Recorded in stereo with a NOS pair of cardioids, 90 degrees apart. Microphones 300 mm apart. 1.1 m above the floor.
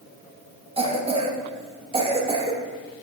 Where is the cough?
20° right, 1.3 m.